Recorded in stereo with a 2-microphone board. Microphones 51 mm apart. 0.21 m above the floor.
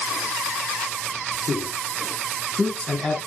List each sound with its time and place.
1.4 s a man speaking: 55° left (ahead or behind), 3.5 m; by 3.2 s 5° left (ahead or behind), 2 m